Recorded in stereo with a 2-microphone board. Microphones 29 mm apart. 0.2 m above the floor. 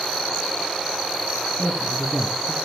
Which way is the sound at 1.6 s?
10° left (ahead or behind).